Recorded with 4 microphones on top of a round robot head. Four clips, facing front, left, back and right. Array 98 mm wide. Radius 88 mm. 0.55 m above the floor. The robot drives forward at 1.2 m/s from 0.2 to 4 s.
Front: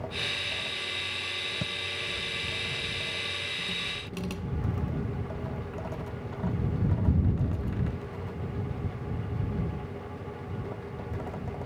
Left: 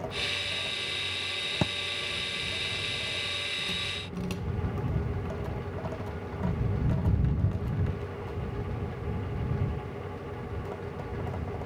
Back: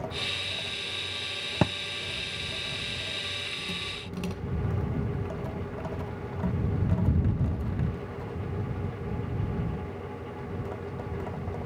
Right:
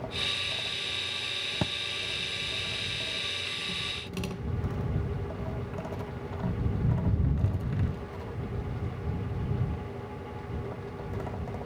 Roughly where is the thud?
Behind.